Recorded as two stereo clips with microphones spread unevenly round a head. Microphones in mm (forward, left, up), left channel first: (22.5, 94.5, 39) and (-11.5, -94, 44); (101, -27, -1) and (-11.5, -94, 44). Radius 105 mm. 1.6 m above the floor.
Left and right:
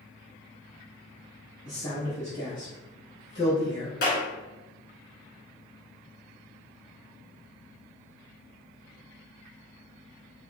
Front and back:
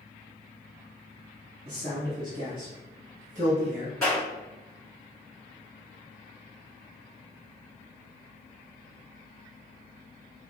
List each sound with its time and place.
1.6 s a man speaking: 150° left, 1.8 m; by 3.9 s 145° left, 0.8 m
4.0 s a clap: 125° left, 2 m